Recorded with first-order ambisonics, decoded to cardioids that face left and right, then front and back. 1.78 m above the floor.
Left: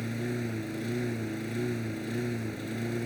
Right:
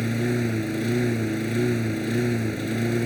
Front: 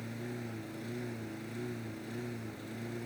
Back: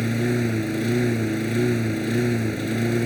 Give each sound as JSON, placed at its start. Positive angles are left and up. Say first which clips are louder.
{"t": 0.0, "sound": "a lawn mower", "louder": "right 9 dB, back 18 dB", "azimuth_deg": -150}